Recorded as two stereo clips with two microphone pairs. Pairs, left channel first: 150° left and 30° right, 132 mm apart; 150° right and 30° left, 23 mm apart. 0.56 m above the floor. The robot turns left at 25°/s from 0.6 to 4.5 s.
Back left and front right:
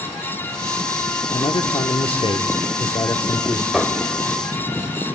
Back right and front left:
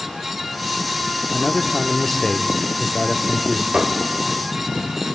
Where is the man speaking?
160° left, 1.1 m; by 3.6 s 100° left, 1.1 m.